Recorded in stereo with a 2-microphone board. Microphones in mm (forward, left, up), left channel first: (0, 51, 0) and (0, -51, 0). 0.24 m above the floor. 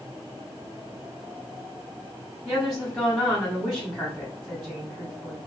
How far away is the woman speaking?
About 1.7 m.